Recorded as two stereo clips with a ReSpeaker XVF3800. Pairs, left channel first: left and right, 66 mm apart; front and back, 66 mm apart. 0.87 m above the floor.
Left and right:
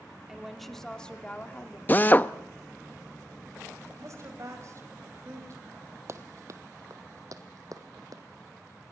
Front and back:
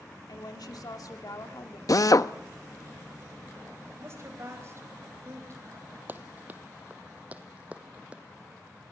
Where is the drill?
25° left, 0.6 m.